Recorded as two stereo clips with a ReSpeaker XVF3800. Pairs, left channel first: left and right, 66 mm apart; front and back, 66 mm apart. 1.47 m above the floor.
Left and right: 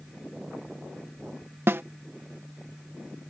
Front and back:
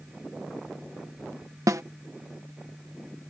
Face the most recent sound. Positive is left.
turn(degrees=-140)